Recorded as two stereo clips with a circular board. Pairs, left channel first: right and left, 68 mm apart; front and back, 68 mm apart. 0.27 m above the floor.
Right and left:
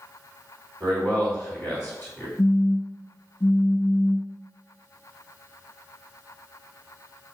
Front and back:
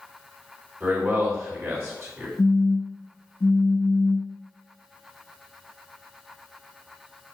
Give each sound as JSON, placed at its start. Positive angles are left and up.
{"t": 0.8, "sound": "a man speaking", "azimuth_deg": -150, "distance_m": 2.0}
{"t": 2.4, "sound": "a phone buzzing", "azimuth_deg": -30, "distance_m": 0.7}